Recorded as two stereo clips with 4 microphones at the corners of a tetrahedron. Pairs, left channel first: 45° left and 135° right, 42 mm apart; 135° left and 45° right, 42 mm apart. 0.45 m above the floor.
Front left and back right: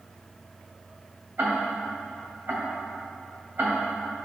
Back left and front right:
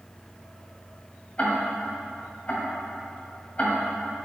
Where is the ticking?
165° right, 1.8 m.